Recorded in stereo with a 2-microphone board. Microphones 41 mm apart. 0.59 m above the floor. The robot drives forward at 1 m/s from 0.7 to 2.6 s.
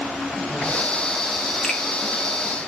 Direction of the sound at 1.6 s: 15° left (ahead or behind).